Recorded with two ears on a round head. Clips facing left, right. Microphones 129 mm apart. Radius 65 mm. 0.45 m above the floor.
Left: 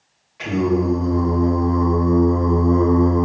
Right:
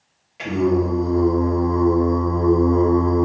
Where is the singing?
30° right (ahead or behind), 1.6 m.